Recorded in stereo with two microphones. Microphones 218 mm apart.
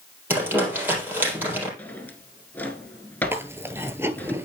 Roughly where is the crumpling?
Centre.